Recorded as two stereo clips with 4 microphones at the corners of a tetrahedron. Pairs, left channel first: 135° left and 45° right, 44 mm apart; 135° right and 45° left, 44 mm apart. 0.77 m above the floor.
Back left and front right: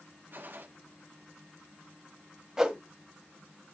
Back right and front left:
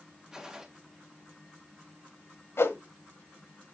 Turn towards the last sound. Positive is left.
turn(degrees=-120)